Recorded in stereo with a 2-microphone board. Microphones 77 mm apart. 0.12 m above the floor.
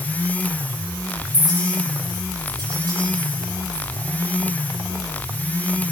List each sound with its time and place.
1.3 s a clink: 70° right (ahead or behind), 8.5 m